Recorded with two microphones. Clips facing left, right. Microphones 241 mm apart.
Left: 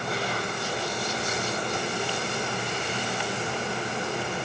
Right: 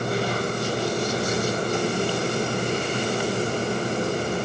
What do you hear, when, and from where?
Only background noise.